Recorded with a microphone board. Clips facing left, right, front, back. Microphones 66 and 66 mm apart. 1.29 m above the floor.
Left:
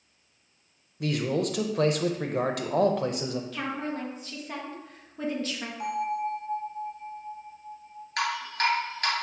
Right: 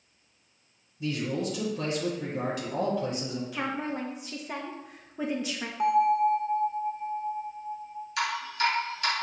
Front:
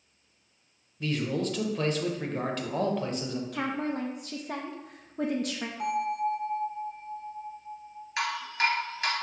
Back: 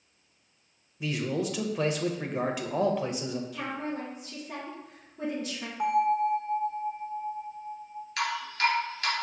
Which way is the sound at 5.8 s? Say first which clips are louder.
Right 8 dB, back 5 dB; 115° right.